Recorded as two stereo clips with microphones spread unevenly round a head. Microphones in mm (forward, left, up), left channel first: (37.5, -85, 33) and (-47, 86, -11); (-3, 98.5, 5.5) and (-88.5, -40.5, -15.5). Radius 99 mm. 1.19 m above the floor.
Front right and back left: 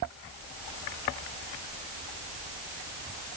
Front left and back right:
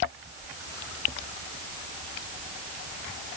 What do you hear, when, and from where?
Only background noise.